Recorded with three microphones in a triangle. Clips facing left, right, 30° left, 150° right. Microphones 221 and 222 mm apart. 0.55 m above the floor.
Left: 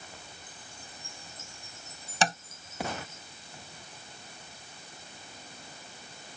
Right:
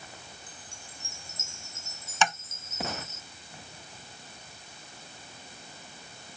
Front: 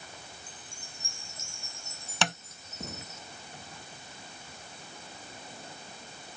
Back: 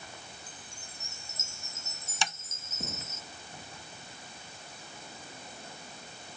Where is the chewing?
I don't hear chewing.